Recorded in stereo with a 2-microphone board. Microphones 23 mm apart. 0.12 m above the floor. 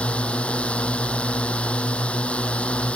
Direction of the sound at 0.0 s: 70° left (ahead or behind).